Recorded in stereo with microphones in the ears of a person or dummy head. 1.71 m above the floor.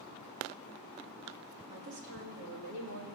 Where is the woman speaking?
65° right (ahead or behind), 2.5 m.